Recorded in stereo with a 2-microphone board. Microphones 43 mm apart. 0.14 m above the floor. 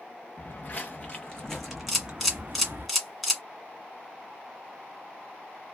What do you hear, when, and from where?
0.4 s footsteps: 40° left (ahead or behind), 1.1 m; by 2.9 s 50° right (ahead or behind), 0.7 m
1.9 s a camera shutter: centre (ahead or behind), 1.5 m